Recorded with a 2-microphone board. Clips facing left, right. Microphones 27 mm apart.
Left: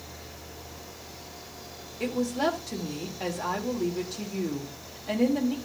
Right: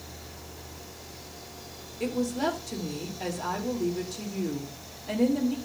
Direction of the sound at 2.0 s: 15° left (ahead or behind).